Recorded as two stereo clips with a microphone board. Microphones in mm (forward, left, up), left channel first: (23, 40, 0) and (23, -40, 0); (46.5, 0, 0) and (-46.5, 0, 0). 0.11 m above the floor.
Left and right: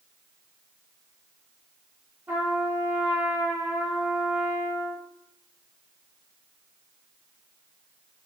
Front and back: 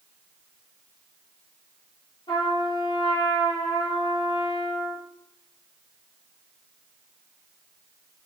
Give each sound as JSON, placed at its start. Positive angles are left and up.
{"t": 2.3, "sound": "a trumpet", "azimuth_deg": -20, "distance_m": 4.0}